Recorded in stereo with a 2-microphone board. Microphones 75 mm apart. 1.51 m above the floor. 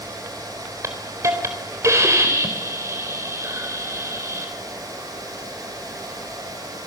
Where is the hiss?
40° right (ahead or behind), 4 m.